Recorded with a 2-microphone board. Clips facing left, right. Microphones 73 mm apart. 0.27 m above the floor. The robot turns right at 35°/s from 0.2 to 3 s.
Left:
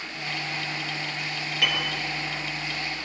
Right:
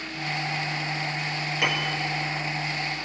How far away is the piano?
About 4.5 m.